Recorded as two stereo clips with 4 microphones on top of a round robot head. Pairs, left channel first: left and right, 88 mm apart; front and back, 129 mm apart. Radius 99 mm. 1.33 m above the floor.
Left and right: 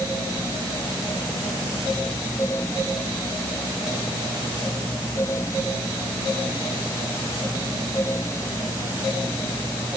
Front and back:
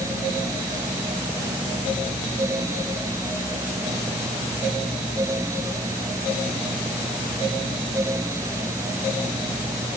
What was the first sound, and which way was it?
Only background noise.